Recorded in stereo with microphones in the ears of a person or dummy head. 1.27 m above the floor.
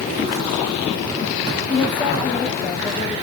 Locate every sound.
1.7 s a woman speaking: 15° left (ahead or behind), 3 m